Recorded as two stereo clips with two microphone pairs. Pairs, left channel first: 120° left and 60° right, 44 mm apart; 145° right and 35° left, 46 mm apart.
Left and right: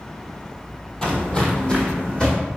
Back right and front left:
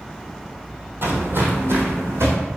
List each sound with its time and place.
1.0 s footsteps: 50° left, 1.0 m; by 2.4 s 55° left, 1.6 m